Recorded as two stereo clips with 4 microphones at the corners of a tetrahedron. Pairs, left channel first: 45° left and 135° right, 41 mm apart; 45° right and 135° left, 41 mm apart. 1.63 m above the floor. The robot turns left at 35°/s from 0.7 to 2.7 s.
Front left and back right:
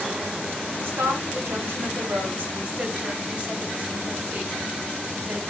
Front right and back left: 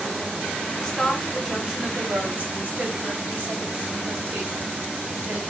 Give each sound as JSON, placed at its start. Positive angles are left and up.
{"t": 0.8, "sound": "a woman speaking", "azimuth_deg": -125, "distance_m": 1.3}